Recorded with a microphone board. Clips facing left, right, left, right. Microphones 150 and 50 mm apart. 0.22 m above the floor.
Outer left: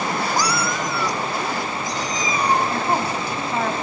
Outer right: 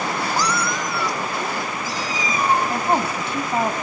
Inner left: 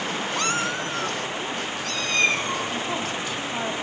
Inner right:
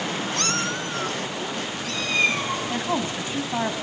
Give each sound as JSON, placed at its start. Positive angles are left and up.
{"t": 0.4, "sound": "a cat meowing", "side_deg": 15, "distance_m": 0.5}
{"t": 2.7, "sound": "a woman speaking", "side_deg": -25, "distance_m": 1.6}